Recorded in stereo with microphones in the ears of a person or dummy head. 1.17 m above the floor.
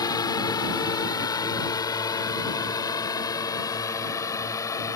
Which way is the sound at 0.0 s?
20° left (ahead or behind).